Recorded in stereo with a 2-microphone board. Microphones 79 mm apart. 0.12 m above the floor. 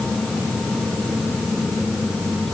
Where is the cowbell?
I don't hear a cowbell.